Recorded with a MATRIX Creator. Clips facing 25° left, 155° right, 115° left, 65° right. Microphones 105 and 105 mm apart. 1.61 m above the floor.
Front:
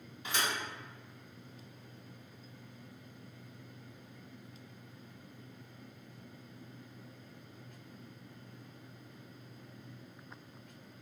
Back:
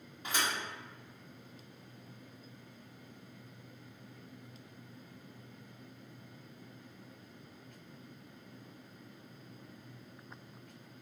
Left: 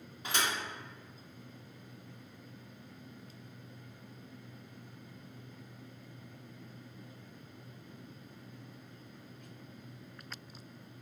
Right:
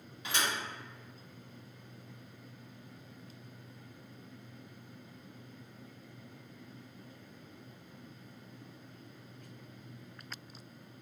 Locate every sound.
0.2 s a thud: 160° left, 2.0 m